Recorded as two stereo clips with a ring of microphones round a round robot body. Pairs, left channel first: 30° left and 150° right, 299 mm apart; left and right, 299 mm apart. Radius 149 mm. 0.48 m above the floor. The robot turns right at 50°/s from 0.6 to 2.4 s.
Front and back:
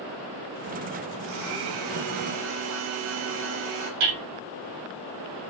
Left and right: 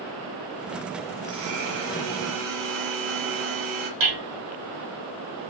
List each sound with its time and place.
1.2 s a blender: 170° right, 5 m; by 3.9 s 110° right, 5 m
4.0 s hammering: 115° right, 5 m